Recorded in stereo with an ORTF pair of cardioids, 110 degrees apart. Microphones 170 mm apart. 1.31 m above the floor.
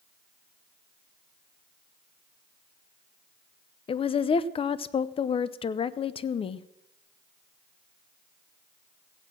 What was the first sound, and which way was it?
A woman speaking, 35° left.